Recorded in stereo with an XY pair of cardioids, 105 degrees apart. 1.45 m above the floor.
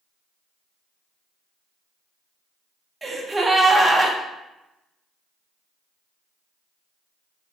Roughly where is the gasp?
Ahead.